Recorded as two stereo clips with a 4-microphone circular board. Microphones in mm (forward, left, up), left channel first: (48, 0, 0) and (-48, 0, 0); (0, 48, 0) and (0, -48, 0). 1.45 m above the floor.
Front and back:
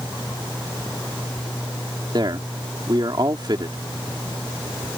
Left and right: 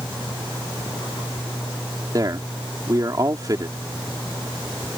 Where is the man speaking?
140° right.